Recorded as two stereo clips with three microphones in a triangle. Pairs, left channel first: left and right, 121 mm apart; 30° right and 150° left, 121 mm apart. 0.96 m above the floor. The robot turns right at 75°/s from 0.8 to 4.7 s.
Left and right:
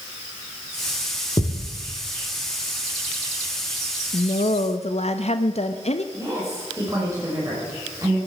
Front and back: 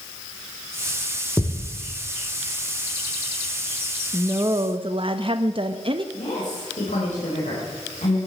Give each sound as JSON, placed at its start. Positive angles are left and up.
{"t": 1.4, "sound": "a thud", "azimuth_deg": 45, "distance_m": 1.3}
{"t": 4.1, "sound": "a woman speaking", "azimuth_deg": 70, "distance_m": 0.8}
{"t": 6.1, "sound": "a woman speaking", "azimuth_deg": -25, "distance_m": 5.0}